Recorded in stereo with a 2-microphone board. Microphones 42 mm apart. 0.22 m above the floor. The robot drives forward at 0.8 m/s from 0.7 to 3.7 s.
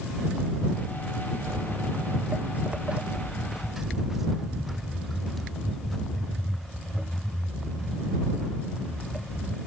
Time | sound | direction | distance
1.5 | footsteps | 75° right (ahead or behind) | ?